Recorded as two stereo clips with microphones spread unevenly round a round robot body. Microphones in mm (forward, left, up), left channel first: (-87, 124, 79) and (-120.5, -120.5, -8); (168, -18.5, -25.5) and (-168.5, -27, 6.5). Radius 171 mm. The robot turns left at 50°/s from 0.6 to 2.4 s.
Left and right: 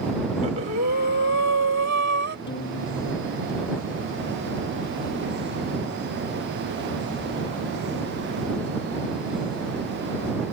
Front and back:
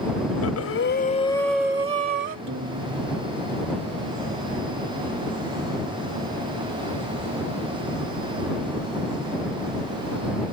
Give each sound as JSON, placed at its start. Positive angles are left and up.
{"t": 0.4, "sound": "breathing", "azimuth_deg": -40}
{"t": 2.5, "sound": "a guitar", "azimuth_deg": 125}